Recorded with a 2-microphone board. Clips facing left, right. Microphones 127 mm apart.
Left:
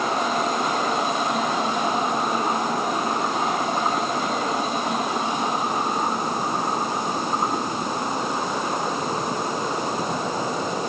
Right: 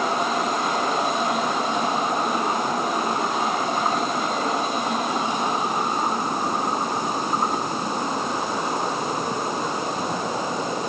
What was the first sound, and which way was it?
Only background noise.